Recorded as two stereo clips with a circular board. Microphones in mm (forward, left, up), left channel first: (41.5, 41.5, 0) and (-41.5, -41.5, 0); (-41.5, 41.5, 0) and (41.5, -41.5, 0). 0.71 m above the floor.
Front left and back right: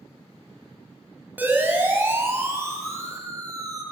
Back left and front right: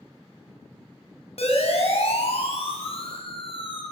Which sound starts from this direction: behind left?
A siren, at 1.4 s.